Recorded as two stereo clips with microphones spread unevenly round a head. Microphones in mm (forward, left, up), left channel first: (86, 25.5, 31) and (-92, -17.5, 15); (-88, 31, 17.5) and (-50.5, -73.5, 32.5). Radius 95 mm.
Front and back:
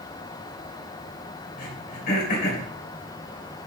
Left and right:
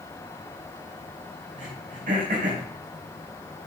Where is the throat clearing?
25° right, 2.5 m.